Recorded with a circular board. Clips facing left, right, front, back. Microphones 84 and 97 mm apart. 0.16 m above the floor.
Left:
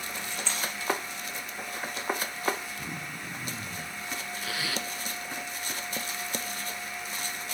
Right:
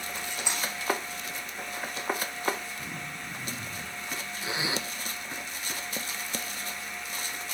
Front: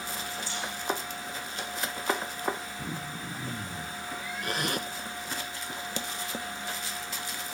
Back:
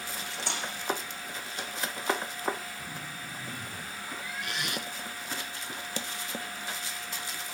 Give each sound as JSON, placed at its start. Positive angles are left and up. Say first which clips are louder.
{"t": 0.2, "sound": "cutlery clinking", "louder": "right 1 dB, back 2 dB", "azimuth_deg": -165, "distance_m": 5.5}
{"t": 2.8, "sound": "throat clearing", "louder": "left 1 dB, front 4 dB", "azimuth_deg": 15, "distance_m": 5.5}
{"t": 4.4, "sound": "a zipper", "louder": "right 3 dB, front 5 dB", "azimuth_deg": -30, "distance_m": 0.7}